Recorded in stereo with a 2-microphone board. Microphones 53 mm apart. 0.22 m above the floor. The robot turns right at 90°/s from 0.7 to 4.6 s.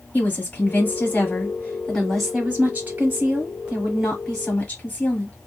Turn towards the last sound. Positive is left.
turn(degrees=40)